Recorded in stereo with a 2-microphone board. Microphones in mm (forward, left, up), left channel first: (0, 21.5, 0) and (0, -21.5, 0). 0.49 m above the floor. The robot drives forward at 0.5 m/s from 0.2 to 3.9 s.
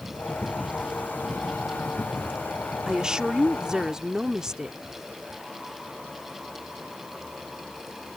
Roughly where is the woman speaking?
Centre.